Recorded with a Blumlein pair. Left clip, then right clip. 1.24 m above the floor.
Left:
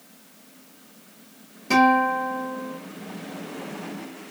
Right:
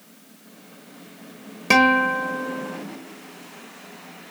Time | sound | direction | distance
1.7 | a guitar | 50° right | 1.3 m